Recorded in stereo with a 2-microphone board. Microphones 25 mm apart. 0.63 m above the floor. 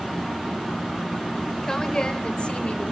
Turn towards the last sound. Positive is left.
turn(degrees=50)  # may be behind; listen again after turning